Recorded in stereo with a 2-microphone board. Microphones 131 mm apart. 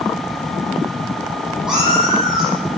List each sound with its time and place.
1.7 s a cat meowing: 5° right (ahead or behind), 8 m